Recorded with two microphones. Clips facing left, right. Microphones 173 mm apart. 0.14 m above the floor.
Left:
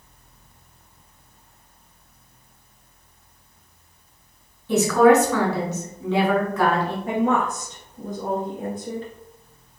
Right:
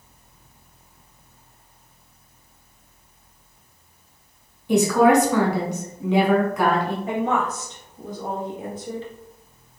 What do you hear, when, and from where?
4.7 s a woman speaking: 15° right (ahead or behind), 1.1 m
7.1 s a woman speaking: 50° left (ahead or behind), 1.7 m